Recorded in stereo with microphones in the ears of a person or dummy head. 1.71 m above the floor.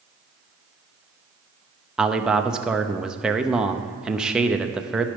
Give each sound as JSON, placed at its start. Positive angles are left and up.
{"t": 2.0, "sound": "a man speaking", "side_deg": -5, "distance_m": 0.6}